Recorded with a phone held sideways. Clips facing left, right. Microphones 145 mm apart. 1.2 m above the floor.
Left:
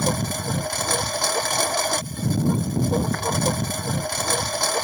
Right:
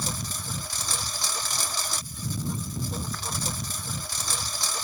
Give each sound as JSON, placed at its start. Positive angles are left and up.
{"t": 0.0, "sound": "a lawn mower", "side_deg": 65}